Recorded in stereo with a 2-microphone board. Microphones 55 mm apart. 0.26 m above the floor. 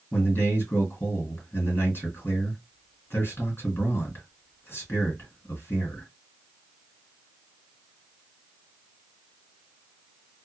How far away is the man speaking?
About 1.9 m.